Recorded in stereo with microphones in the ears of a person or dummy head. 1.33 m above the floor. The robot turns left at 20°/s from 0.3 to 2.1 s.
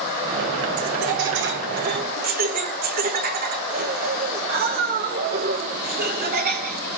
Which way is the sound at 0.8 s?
70° right (ahead or behind).